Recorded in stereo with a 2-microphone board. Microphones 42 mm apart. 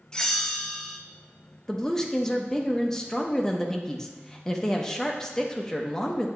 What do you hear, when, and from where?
0.1 s a bell: 15° left (ahead or behind), 0.6 m
1.7 s a woman speaking: 10° left (ahead or behind), 0.7 m